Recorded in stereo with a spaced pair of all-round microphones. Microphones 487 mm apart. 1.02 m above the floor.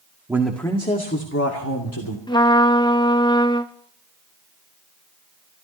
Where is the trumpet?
10° left (ahead or behind), 0.8 m.